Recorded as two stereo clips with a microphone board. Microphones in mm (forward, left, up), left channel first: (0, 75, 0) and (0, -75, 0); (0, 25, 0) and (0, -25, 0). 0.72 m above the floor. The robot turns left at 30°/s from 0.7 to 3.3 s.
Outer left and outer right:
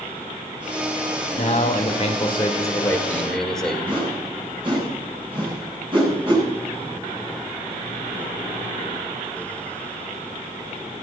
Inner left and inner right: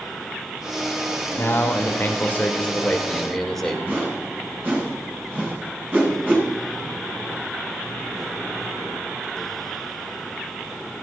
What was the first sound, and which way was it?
A man speaking, 60° left.